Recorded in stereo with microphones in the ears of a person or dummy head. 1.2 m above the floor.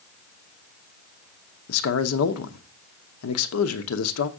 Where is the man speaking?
85° left, 1.0 m.